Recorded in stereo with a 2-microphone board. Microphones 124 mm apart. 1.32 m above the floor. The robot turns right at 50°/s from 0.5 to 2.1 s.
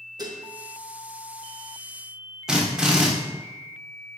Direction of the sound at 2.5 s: 5° right (ahead or behind).